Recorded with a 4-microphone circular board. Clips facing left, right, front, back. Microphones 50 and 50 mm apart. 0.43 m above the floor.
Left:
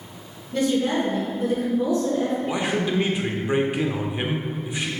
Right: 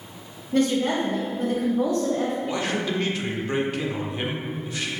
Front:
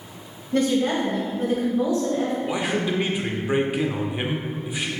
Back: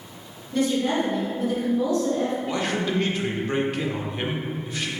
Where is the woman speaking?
40° right, 2 m; by 2.4 s 75° right, 2 m.